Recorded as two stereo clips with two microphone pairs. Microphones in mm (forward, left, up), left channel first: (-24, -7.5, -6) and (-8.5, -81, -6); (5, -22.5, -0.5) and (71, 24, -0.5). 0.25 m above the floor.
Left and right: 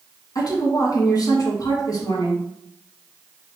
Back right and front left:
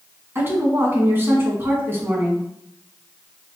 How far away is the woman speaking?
About 2 m.